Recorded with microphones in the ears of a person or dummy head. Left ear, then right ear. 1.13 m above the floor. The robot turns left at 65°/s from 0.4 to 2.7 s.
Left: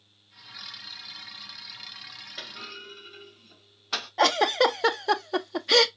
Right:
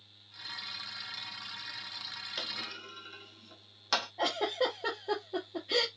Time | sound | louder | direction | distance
2.4 | a clunk | right 1 dB | 60° right (ahead or behind) | 1.3 m
4.2 | a giggle | left 15 dB | 65° left (ahead or behind) | 0.5 m